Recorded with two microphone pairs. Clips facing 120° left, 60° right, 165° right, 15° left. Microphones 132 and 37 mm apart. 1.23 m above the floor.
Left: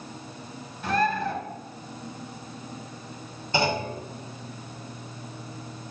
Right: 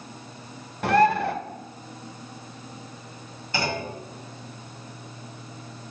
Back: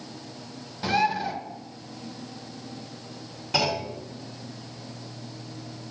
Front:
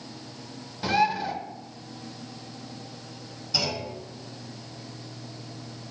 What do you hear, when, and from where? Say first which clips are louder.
0.8 s a bird: right 6 dB, even; 75° right, 0.7 m
3.5 s a clunk: left 3 dB, back 5 dB; straight behind, 1.8 m